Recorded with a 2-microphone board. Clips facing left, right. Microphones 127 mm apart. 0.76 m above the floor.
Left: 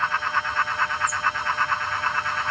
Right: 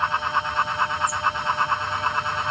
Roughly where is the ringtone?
No ringtone in this recording.